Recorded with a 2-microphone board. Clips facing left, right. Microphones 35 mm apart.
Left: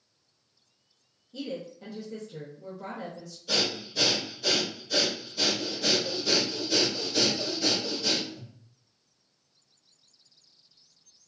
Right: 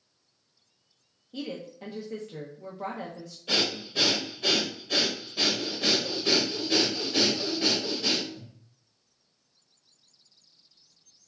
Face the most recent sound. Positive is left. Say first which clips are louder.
# right 1 dB
turn(degrees=-40)  # may be behind; listen again after turning